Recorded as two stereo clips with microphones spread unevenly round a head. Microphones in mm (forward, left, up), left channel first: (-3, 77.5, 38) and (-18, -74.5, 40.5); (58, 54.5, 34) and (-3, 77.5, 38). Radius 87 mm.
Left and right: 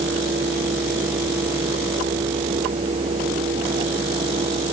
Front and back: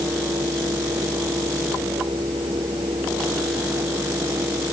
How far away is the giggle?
I don't hear a giggle.